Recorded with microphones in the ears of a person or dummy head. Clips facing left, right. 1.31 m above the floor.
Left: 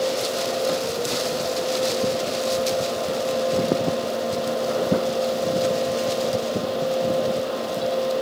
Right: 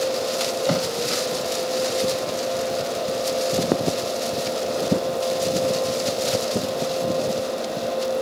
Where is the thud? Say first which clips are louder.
Right 4 dB; 70° right (ahead or behind).